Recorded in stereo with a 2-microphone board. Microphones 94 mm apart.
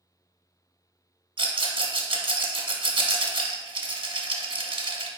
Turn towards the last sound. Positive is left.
turn(degrees=-65)  # may be behind; listen again after turning